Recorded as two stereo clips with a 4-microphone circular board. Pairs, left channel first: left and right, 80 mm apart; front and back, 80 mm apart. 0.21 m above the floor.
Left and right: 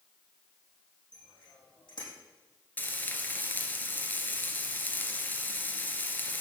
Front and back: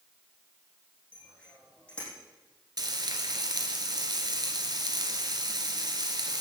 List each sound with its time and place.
1.1 s a bicycle bell: 75° left, 6.5 m
2.8 s frying: 155° left, 2.0 m